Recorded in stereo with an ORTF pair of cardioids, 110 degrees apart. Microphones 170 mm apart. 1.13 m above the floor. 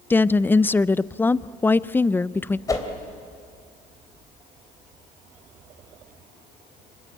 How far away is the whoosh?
About 3.5 m.